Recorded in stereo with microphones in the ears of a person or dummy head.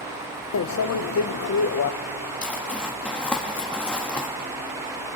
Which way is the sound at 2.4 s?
10° left (ahead or behind).